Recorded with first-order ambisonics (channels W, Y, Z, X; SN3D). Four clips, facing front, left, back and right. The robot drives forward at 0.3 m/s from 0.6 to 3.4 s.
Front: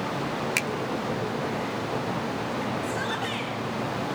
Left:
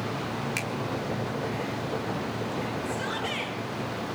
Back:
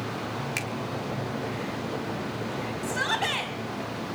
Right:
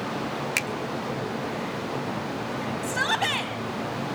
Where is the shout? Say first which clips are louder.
Right 6 dB, back 2 dB; 110° right, 4 m; by 3.5 s 115° right, 4 m.